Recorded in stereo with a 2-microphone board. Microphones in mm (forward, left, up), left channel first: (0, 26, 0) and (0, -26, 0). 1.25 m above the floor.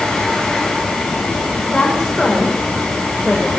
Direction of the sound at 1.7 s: 5° left (ahead or behind).